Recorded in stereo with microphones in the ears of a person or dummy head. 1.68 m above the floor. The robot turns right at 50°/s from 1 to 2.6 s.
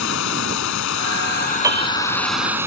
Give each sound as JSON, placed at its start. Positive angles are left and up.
{"t": 0.0, "sound": "running water", "azimuth_deg": 115}
{"t": 1.6, "sound": "a piano", "side_deg": -20}